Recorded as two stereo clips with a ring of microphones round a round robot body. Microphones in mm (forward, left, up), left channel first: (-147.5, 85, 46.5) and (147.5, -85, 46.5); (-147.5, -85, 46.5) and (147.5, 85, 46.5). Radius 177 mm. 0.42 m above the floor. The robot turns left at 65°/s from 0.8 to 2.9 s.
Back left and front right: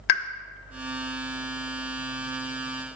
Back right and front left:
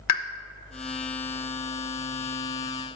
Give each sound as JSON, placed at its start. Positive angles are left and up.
{"t": 0.1, "sound": "a pop", "azimuth_deg": 165, "distance_m": 0.7}